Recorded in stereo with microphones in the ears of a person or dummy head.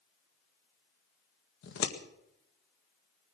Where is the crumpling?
No crumpling in this recording.